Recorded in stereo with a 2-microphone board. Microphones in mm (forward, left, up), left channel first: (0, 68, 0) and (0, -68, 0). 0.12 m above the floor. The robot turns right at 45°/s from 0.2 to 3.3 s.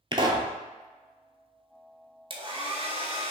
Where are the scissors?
I don't hear scissors.